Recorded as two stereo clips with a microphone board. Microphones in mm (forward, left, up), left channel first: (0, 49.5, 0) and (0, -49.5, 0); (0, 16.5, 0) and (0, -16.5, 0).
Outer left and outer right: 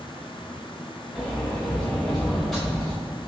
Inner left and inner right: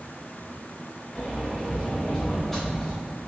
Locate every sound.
1.1 s a sliding door: 5° left (ahead or behind), 2.5 m